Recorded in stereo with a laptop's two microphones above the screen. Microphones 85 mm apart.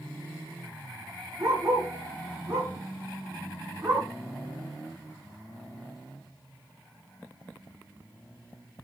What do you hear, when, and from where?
1.4 s a dog barking: 35° right (ahead or behind), 5.5 m; by 4.1 s 30° right (ahead or behind), 4 m